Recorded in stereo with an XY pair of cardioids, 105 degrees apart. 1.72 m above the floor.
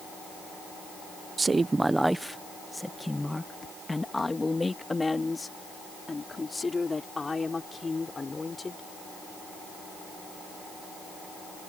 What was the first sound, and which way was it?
A woman speaking, 30° right.